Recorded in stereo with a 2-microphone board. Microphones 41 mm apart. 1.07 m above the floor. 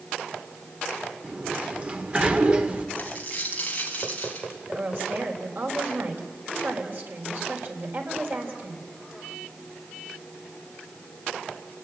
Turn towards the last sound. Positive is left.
turn(degrees=-50)  # may be behind; listen again after turning